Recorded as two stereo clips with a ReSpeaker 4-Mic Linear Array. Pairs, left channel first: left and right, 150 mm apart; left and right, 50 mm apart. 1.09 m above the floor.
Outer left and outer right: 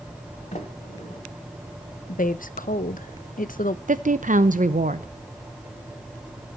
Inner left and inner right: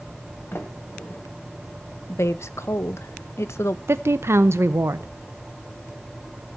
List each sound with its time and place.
0.5 s a sliding door: 50° left (ahead or behind), 1.8 m
2.1 s a woman speaking: 65° left (ahead or behind), 0.8 m
3.9 s a woman speaking: 60° right (ahead or behind), 0.9 m